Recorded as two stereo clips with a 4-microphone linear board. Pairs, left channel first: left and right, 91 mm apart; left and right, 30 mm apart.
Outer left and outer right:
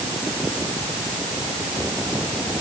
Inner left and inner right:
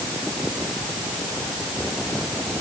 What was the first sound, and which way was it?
Only background noise.